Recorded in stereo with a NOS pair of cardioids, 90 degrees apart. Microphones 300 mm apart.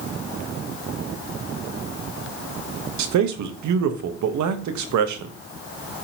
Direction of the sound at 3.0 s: 70° right.